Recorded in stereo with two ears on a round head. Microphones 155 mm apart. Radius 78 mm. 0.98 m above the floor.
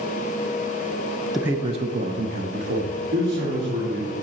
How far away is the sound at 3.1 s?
About 2.5 m.